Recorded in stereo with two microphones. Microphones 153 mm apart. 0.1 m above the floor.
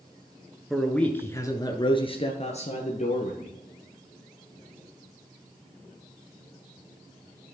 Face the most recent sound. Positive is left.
turn(degrees=60)  # may be behind; listen again after turning